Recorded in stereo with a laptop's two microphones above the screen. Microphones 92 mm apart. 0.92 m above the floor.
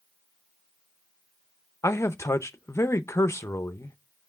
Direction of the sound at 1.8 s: 30° left (ahead or behind).